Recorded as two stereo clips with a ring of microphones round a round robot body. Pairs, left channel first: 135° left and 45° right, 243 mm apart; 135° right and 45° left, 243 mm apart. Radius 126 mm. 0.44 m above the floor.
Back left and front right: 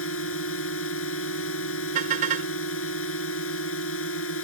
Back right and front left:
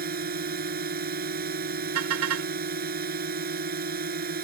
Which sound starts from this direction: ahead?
A car horn, at 1.9 s.